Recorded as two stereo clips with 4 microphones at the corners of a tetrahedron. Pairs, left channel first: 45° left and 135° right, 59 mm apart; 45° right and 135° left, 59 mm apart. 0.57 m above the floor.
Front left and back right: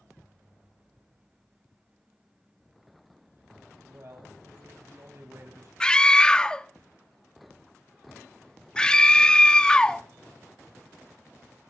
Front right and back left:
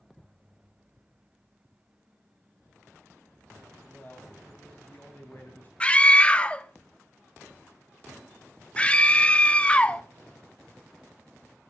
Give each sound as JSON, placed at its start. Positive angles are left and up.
{"t": 3.8, "sound": "a man speaking", "azimuth_deg": -100, "distance_m": 3.0}
{"t": 5.8, "sound": "a scream", "azimuth_deg": -5, "distance_m": 0.6}